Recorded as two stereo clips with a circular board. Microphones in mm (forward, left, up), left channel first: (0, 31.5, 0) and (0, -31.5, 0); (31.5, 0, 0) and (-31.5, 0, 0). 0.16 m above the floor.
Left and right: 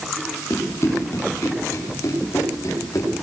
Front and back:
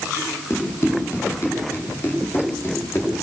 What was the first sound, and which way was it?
Running footsteps, 45° left.